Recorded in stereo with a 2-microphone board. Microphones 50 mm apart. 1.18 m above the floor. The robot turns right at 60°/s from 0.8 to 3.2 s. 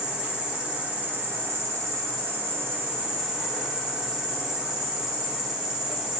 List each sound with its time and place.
0.0 s an insect: 160° right, 0.9 m; by 6.2 s 15° right, 0.9 m